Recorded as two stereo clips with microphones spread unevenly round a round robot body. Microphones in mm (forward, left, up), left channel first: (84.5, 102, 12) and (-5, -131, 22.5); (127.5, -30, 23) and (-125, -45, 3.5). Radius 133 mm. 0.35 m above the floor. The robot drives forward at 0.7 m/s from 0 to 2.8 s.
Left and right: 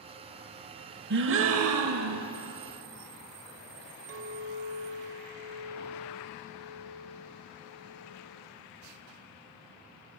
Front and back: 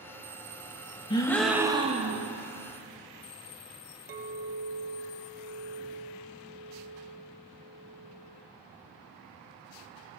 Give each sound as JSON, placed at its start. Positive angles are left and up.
{"t": 1.1, "sound": "a gasp", "azimuth_deg": -70, "distance_m": 0.8}
{"t": 4.1, "sound": "a clink", "azimuth_deg": -140, "distance_m": 0.8}